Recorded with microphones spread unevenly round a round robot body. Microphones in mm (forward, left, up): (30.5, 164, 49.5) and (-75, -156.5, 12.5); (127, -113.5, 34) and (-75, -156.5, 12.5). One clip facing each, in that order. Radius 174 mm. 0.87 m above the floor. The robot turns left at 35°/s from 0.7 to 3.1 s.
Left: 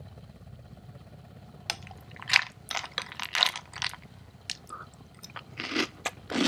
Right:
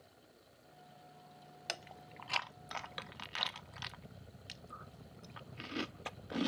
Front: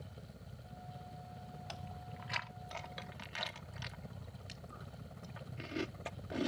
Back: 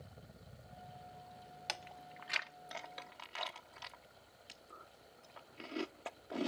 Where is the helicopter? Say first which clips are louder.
Left 11 dB, front 4 dB; 80° left; by 6.5 s 5° right.